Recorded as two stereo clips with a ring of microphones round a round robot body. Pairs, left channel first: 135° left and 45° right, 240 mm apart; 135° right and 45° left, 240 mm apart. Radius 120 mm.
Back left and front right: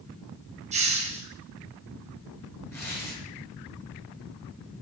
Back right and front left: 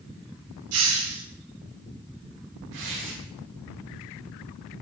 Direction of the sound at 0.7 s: 20° left.